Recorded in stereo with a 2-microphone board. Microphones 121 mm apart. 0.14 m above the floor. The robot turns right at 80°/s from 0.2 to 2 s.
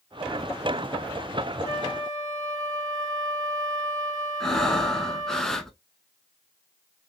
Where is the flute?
35° right (ahead or behind), 1.5 m; by 5.4 s 30° right (ahead or behind), 1.5 m.